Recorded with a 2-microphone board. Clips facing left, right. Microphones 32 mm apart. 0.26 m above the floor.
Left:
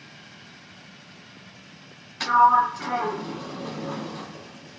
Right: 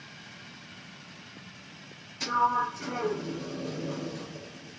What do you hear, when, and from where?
2.2 s a sliding door: 60° left (ahead or behind), 0.7 m